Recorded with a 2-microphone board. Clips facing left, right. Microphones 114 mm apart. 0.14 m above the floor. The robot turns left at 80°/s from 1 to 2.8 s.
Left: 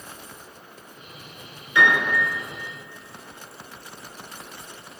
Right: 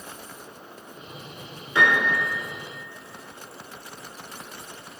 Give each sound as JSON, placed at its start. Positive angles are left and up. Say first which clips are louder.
{"t": 1.8, "sound": "a piano", "louder": "left 1 dB", "azimuth_deg": -135, "distance_m": 1.1}